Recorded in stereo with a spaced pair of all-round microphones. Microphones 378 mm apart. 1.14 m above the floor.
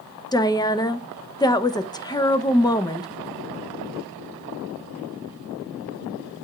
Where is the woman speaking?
10° left (ahead or behind), 0.6 m.